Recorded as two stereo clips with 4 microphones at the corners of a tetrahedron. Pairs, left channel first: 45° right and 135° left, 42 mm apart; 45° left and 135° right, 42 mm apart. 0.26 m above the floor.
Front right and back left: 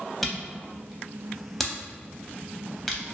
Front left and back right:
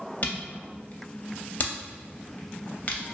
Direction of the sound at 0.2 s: 35° left.